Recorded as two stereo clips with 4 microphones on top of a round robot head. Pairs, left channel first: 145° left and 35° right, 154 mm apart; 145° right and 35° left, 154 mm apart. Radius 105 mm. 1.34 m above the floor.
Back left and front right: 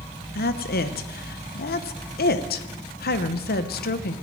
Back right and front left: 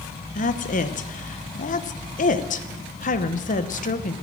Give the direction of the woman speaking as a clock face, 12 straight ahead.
6 o'clock.